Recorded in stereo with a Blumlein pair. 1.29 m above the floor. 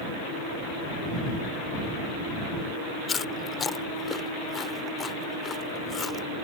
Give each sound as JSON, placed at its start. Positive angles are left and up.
{"t": 3.1, "sound": "chewing", "azimuth_deg": 20}